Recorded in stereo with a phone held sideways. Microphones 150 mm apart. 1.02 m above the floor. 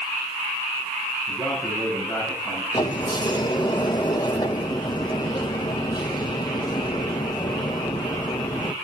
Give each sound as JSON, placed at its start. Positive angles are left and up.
{"t": 1.3, "sound": "a man speaking", "side_deg": 15, "distance_m": 9.0}
{"t": 2.7, "sound": "a sliding door", "side_deg": 30, "distance_m": 1.2}